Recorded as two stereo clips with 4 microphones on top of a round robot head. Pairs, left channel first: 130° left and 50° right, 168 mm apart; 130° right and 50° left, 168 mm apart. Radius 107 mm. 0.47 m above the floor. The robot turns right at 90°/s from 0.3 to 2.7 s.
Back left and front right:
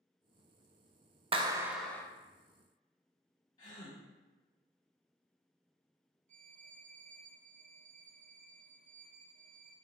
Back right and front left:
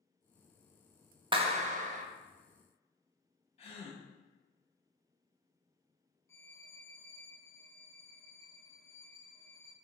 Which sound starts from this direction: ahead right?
A violin, at 6.3 s.